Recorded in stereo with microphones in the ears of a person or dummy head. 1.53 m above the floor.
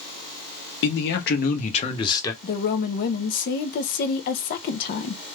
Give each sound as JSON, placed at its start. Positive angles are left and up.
{"t": 0.8, "sound": "a man speaking", "side_deg": 70, "distance_m": 1.0}
{"t": 2.4, "sound": "a woman speaking", "side_deg": 60, "distance_m": 0.6}